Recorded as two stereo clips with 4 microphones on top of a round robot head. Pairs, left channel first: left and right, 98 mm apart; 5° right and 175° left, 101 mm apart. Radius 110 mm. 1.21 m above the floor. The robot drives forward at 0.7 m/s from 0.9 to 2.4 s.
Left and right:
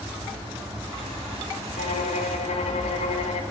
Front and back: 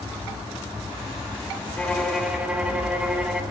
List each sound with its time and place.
1.8 s a violin: 70° left, 1.1 m; by 3.4 s 95° left, 1.1 m